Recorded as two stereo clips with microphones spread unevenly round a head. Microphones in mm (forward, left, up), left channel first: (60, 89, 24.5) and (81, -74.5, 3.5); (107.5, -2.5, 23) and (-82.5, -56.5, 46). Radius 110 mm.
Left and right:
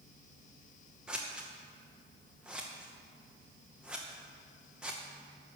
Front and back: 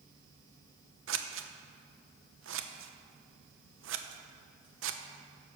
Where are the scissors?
175° right, 0.8 m.